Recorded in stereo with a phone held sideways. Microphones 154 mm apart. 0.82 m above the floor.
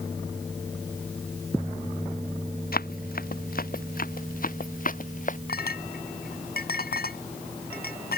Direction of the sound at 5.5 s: 80° left.